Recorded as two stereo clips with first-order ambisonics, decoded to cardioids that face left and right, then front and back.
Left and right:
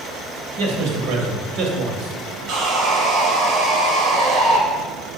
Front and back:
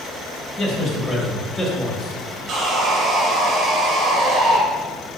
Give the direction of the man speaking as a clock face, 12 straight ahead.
3 o'clock.